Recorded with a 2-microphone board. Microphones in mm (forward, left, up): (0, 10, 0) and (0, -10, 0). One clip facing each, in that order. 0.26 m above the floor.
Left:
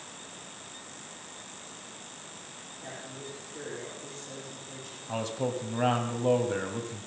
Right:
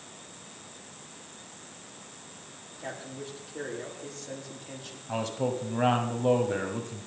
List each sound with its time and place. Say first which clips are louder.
2.8 s a man speaking: right 4 dB; 30° right (ahead or behind), 9.5 m
5.1 s a man speaking: right 2 dB; 5° right (ahead or behind), 2.0 m